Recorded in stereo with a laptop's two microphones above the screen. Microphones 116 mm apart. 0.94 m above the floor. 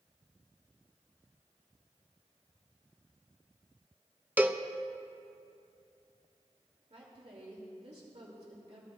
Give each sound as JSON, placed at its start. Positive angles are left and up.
{"t": 4.4, "sound": "a cowbell", "side_deg": -15, "distance_m": 0.7}
{"t": 6.9, "sound": "a woman speaking", "side_deg": -55, "distance_m": 2.5}